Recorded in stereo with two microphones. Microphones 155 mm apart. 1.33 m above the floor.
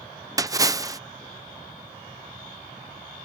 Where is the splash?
25° right (ahead or behind).